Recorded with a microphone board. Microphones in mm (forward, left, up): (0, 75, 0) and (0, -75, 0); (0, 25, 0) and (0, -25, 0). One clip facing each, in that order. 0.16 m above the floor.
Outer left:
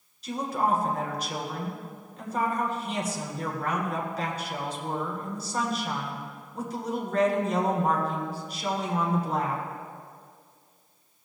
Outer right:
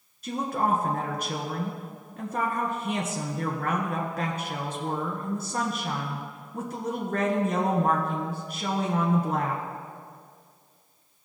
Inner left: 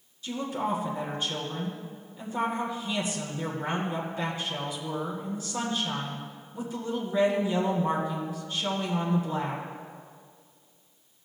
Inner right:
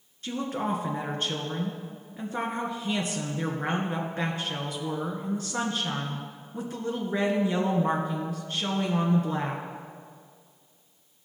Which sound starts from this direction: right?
A woman speaking, at 0.2 s.